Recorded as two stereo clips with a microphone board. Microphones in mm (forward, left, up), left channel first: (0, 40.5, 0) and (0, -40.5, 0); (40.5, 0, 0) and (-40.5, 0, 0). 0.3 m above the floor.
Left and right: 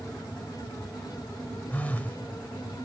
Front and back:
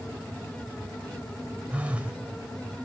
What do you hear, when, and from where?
1.7 s a phone buzzing: 130° left, 1.3 m